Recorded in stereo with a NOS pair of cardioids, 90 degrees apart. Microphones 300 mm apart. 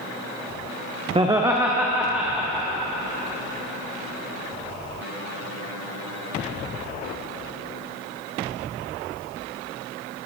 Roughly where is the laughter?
Ahead.